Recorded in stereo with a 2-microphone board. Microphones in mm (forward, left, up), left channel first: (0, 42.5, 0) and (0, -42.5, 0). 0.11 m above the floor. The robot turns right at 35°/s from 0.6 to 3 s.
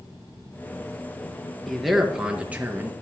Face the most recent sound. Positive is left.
turn(degrees=-140)